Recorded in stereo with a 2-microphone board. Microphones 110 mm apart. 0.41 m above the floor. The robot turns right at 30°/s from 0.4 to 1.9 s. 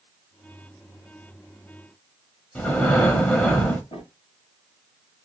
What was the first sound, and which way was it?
Breathing, 10° left (ahead or behind).